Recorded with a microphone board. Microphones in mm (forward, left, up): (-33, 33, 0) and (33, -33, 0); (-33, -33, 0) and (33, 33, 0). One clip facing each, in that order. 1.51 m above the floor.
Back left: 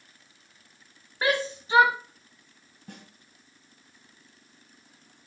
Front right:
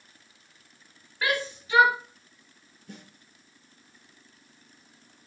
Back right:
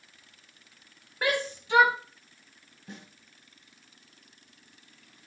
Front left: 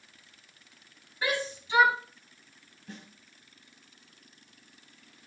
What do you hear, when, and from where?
1.2 s a shout: 165° right, 3 m
2.9 s a snare drum: 160° left, 4.5 m